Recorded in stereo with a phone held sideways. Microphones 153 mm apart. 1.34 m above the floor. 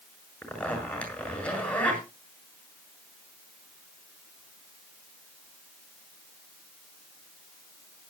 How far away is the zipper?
About 6.5 m.